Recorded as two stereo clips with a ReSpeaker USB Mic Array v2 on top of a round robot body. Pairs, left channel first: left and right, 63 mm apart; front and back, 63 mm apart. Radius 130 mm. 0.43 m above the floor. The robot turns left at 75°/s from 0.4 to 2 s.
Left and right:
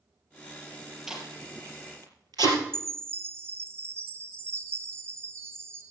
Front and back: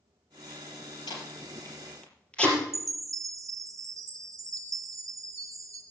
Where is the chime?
145° right, 2 m.